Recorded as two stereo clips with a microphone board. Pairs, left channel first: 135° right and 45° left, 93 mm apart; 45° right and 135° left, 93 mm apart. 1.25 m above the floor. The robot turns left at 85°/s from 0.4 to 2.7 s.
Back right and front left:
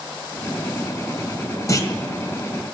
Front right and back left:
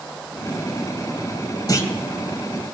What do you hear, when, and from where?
1.7 s a clunk: 85° right, 2 m; by 1.9 s 105° right, 2 m